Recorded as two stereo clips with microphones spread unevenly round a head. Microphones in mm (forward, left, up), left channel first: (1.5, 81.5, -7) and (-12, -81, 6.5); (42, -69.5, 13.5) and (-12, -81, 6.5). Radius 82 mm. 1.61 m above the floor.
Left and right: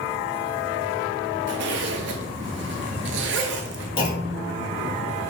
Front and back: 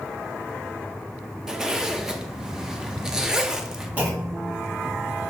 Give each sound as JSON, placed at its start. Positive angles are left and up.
{"t": 1.5, "sound": "a zipper", "azimuth_deg": -85, "distance_m": 0.6}
{"t": 4.0, "sound": "a clunk", "azimuth_deg": 130, "distance_m": 1.0}